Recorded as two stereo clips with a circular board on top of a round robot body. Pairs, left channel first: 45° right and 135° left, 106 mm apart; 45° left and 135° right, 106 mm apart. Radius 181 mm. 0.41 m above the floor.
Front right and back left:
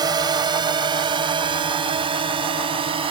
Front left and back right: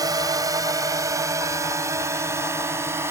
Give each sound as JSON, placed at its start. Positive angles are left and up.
{"t": 0.0, "sound": "a drone", "azimuth_deg": 175}